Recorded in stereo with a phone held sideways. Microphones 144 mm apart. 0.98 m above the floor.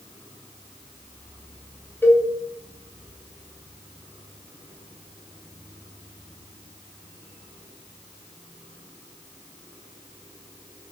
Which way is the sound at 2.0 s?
15° left (ahead or behind).